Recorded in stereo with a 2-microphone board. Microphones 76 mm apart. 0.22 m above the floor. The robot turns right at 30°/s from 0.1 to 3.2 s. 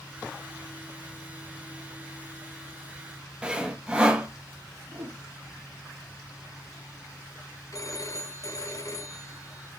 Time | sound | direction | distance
3.4 | sawing | 15° right (ahead or behind) | 1.2 m
4.9 | a whoosh | 40° right (ahead or behind) | 7 m
7.7 | a phone ringing | 45° left (ahead or behind) | 1.2 m